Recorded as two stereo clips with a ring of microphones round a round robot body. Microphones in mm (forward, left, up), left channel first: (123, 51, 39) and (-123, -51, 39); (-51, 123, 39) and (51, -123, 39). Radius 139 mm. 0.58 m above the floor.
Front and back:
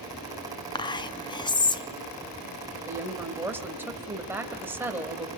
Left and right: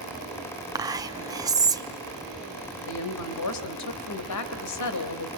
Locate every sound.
0.8 s whispering: 15° right, 0.9 m
2.9 s a woman speaking: 120° left, 2.5 m